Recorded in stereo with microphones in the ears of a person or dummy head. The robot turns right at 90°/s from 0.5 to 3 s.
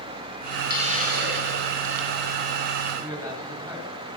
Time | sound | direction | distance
0.7 | a hiss | 155° right | 4.5 m
3.0 | a man speaking | 15° right (ahead or behind) | 10 m